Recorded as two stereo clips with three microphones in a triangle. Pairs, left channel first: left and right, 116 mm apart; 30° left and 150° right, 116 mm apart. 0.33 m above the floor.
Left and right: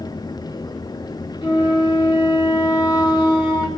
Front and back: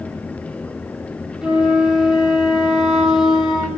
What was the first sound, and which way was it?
A flute, 125° left.